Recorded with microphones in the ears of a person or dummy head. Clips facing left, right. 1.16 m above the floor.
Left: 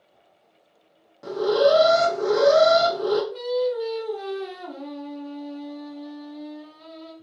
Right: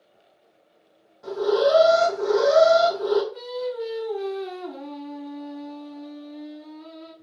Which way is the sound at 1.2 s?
60° left (ahead or behind).